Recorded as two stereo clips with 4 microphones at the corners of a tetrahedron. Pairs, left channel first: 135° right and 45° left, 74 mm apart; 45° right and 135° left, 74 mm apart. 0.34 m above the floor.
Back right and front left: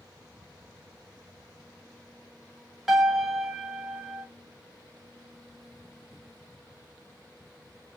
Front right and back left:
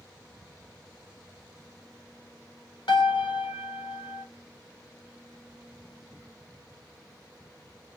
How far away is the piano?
About 1.1 m.